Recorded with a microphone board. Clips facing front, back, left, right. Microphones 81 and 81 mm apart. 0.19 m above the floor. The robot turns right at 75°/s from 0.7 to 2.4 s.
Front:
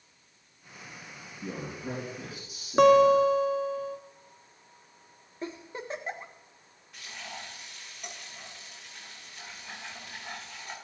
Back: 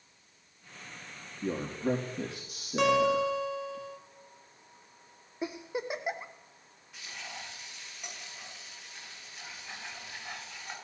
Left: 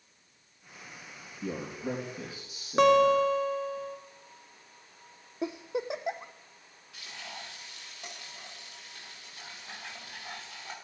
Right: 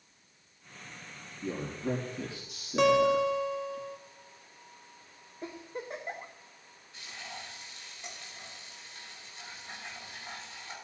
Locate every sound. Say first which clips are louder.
1.4 s a man speaking: back 6 dB, even; 90° left, 6 m; by 3.8 s 165° left, 6 m
2.8 s a guitar: front 7 dB, left 3 dB; 45° left, 1.3 m
5.4 s a giggle: back 3 dB, left 8 dB; 100° left, 1.4 m
6.9 s frying: front 2 dB, even; 90° left, 7 m